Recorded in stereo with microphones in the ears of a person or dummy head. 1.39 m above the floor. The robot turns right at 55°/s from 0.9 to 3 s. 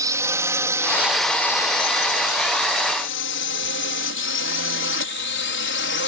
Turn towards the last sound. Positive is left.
turn(degrees=55)  # may be behind; listen again after turning